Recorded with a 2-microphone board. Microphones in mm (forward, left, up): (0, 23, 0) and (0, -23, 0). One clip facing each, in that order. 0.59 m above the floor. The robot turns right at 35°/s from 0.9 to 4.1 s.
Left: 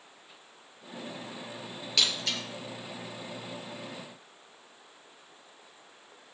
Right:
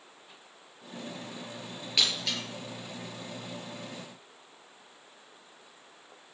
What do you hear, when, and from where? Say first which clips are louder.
2.0 s breaking glass: even; 15° right (ahead or behind), 4 m; by 2.4 s centre (ahead or behind), 4 m